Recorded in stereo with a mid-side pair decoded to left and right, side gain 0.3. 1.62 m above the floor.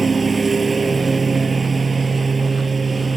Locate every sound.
0.0 s a lawn mower: 45° right